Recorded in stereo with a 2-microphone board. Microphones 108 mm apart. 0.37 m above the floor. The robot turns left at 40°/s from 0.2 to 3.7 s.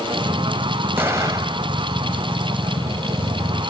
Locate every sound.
1.0 s an explosion: 25° right (ahead or behind), 1.4 m; by 1.7 s 45° right (ahead or behind), 1.4 m